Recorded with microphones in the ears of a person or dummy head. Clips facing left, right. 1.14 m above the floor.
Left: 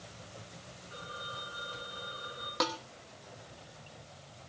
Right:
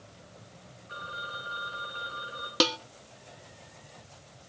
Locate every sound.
0.9 s a phone ringing: 70° right (ahead or behind), 5 m
2.6 s dishes clattering: 35° right (ahead or behind), 0.8 m